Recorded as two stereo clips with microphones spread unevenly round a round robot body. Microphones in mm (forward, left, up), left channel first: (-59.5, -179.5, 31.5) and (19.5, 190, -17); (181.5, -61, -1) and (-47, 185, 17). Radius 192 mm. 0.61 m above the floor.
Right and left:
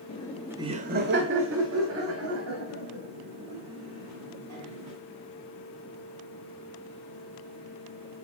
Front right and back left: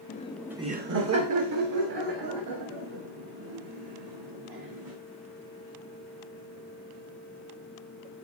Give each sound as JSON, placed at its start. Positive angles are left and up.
{"t": 0.1, "sound": "laughter", "azimuth_deg": -25, "distance_m": 1.0}